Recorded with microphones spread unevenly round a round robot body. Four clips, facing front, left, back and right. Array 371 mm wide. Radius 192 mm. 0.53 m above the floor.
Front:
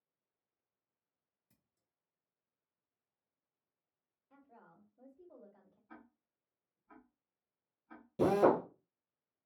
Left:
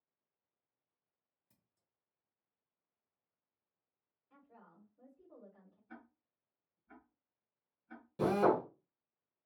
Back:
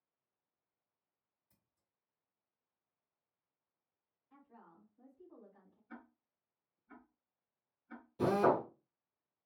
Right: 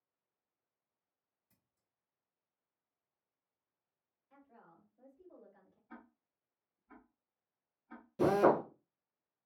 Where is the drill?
10° left, 2 m.